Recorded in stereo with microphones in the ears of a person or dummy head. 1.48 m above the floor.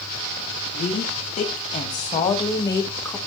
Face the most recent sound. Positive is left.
turn(degrees=10)  # may be behind; listen again after turning